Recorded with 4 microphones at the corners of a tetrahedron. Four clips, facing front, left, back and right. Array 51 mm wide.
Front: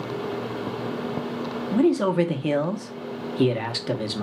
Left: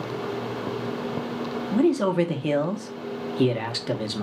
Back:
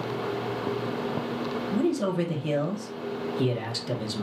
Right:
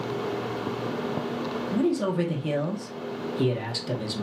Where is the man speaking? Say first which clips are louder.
Left 4 dB, front 7 dB; 40° left, 0.9 m.